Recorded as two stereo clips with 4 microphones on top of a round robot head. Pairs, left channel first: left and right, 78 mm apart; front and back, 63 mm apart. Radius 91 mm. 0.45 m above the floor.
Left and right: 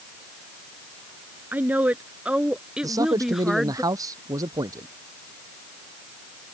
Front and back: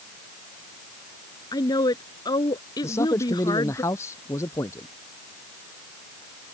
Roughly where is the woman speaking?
Ahead right.